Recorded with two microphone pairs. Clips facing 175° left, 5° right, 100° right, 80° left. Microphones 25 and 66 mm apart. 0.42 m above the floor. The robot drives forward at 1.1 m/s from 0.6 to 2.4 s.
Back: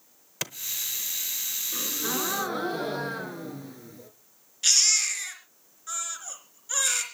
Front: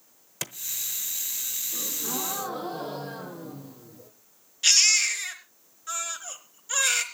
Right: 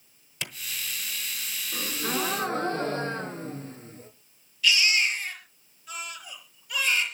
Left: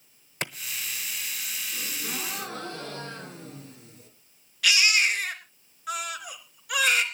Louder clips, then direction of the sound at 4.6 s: Front 2 dB, left 1 dB; 75° left.